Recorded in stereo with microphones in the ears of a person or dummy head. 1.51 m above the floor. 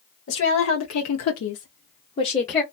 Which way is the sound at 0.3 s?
55° left (ahead or behind).